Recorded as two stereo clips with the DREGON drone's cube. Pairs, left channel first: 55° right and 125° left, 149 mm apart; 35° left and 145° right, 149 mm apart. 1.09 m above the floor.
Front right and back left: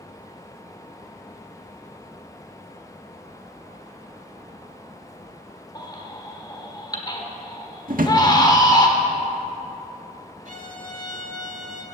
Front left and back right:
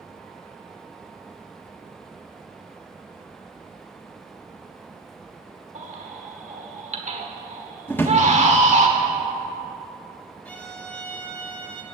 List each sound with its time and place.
5.8 s a baby crying: 115° right, 1.4 m
7.9 s a drawer: 110° left, 1.3 m
10.4 s a violin: 115° left, 1.5 m